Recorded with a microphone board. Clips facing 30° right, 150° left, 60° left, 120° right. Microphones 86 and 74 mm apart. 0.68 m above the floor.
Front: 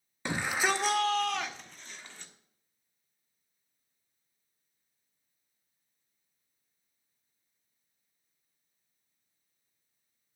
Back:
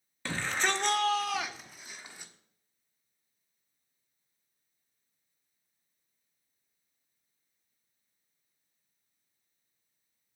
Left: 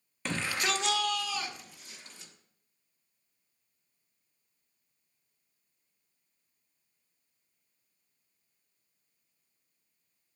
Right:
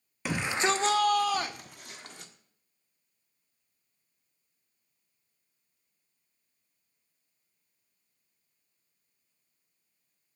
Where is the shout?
50° right, 0.6 m; by 2.3 s 135° right, 1.3 m.